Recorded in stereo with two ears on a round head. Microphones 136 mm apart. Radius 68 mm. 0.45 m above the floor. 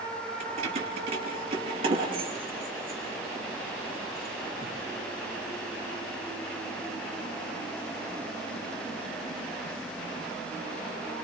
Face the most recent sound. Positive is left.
turn(degrees=-25)  # may be behind; listen again after turning